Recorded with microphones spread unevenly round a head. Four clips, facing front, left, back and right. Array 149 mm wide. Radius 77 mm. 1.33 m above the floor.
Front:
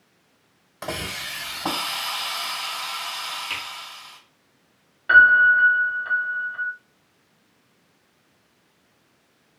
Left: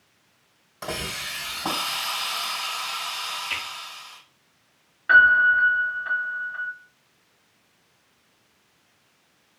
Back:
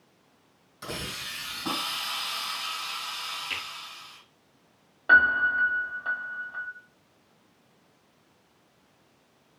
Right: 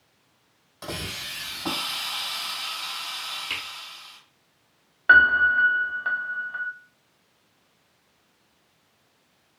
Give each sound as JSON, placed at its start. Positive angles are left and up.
{"t": 0.8, "sound": "a hiss", "azimuth_deg": 20, "distance_m": 1.8}
{"t": 3.5, "sound": "a finger snap", "azimuth_deg": -80, "distance_m": 2.5}
{"t": 5.1, "sound": "a piano", "azimuth_deg": -135, "distance_m": 0.5}